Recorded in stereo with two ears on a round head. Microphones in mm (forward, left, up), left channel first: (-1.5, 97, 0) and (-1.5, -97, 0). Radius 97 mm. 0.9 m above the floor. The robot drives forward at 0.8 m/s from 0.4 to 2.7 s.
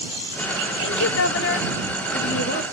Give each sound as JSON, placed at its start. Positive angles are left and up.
{"t": 0.8, "sound": "a woman speaking", "side_deg": 55, "distance_m": 1.5}